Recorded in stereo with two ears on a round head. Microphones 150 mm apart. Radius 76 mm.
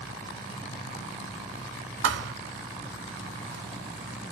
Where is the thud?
80° right, 0.9 m.